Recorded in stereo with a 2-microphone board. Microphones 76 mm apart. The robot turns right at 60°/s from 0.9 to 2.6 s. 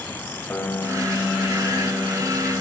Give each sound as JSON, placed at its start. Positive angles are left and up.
{"t": 0.5, "sound": "a piano", "side_deg": 25, "distance_m": 1.1}